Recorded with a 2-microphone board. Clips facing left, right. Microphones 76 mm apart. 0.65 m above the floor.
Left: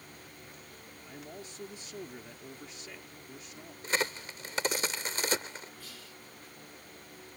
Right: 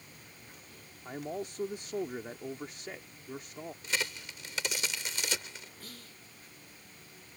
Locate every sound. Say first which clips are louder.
1.1 s a man speaking: right 9 dB; 55° right (ahead or behind)
3.8 s a crack: left 5 dB; 40° left (ahead or behind)
5.8 s whispering: left 1 dB; 45° right (ahead or behind)